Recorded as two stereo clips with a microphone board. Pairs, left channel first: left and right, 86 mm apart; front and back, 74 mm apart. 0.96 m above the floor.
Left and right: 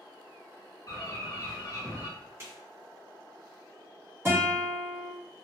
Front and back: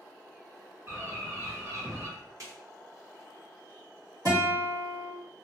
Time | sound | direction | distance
0.9 | a bird | 130° left | 1.2 m
2.4 | a snare drum | 145° right | 1.5 m
4.2 | a guitar | 150° right | 1.5 m